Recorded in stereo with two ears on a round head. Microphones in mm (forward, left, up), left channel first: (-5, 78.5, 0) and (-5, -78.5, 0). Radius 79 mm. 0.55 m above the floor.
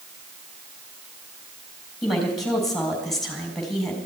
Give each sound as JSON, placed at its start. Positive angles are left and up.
{"t": 2.0, "sound": "a woman speaking", "side_deg": 0, "distance_m": 4.0}